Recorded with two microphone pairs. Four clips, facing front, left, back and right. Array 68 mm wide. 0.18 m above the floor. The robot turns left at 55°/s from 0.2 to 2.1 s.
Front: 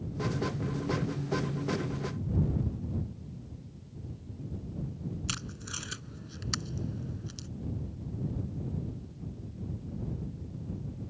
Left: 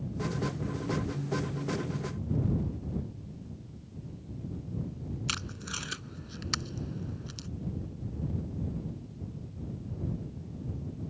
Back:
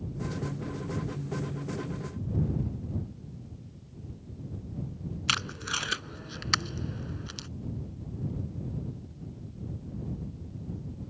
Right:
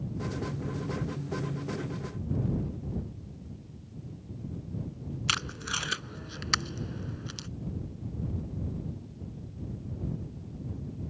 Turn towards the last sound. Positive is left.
turn(degrees=-145)